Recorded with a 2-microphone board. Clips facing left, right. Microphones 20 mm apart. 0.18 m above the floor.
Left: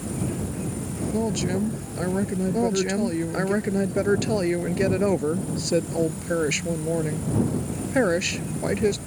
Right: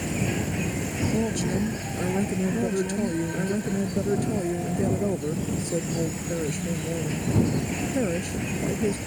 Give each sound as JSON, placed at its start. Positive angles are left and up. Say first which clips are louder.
{"t": 0.0, "sound": "an insect", "louder": "right 2 dB", "side_deg": -60}
{"t": 1.1, "sound": "a woman speaking", "louder": "left 3 dB", "side_deg": 20}
{"t": 2.5, "sound": "a woman speaking", "louder": "left 3 dB", "side_deg": 60}